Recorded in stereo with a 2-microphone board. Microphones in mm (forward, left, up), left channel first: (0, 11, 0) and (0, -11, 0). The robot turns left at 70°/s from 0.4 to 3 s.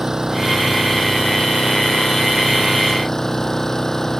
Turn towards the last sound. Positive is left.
turn(degrees=25)